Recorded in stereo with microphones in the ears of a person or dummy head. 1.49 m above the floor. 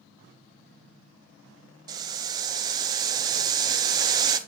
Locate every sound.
1.9 s boiling: 20° right (ahead or behind), 0.7 m